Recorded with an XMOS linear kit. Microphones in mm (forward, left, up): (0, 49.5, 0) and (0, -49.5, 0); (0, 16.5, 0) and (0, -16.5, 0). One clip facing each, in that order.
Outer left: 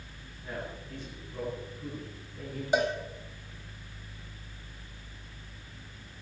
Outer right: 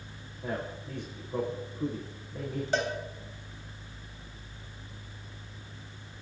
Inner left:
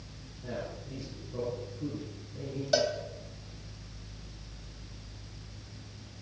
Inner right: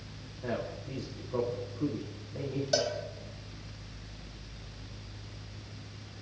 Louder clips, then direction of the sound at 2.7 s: Outer left 3 dB, inner left 3 dB; 15° left (ahead or behind).